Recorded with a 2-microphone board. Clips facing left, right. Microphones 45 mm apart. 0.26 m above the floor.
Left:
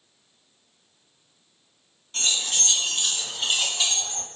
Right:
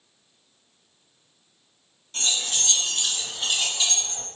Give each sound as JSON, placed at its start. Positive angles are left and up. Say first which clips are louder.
{"t": 2.1, "sound": "keys jangling", "louder": "left 1 dB", "side_deg": 10, "distance_m": 1.8}